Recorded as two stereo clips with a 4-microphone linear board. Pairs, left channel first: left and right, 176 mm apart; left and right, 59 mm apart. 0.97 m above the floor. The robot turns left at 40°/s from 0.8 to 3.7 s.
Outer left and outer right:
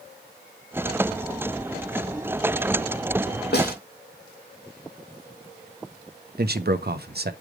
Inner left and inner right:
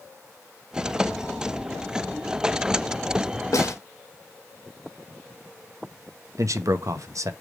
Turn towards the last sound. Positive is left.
turn(degrees=-65)  # may be behind; listen again after turning